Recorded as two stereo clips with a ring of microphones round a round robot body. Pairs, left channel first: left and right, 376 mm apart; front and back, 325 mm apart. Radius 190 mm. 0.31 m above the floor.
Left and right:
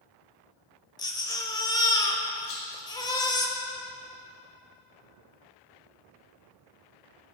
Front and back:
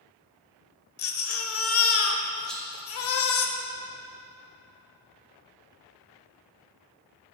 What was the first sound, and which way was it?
A baby crying, 15° left.